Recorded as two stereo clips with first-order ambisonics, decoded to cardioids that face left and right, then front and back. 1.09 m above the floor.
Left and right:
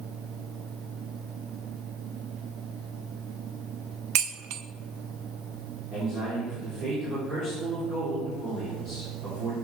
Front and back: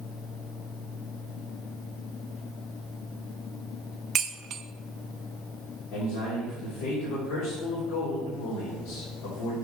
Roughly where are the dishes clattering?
Behind right.